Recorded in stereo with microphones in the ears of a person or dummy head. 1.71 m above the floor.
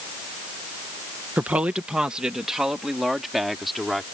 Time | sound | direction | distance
1.4 | a woman speaking | 10° right (ahead or behind) | ?